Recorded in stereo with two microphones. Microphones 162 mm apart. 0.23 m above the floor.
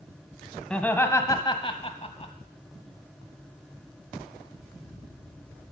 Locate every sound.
0.7 s laughter: 5° left (ahead or behind), 1.2 m; by 2.3 s 40° left (ahead or behind), 1.3 m